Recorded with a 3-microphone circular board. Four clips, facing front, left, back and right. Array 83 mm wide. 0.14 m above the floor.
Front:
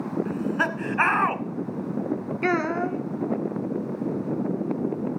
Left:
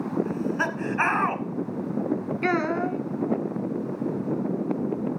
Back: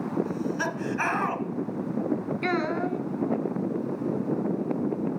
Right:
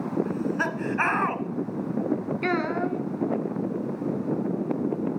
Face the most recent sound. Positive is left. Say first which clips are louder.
# left 3 dB, front 5 dB
turn(degrees=25)